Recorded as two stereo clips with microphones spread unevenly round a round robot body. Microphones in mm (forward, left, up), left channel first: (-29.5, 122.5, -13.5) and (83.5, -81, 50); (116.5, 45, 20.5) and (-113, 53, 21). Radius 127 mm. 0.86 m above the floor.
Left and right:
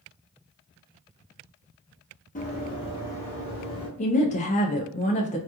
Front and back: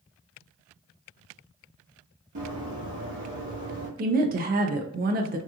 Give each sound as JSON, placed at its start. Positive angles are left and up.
{"t": 2.4, "sound": "running footsteps", "azimuth_deg": 180, "distance_m": 1.1}
{"t": 4.0, "sound": "a woman speaking", "azimuth_deg": 140, "distance_m": 0.5}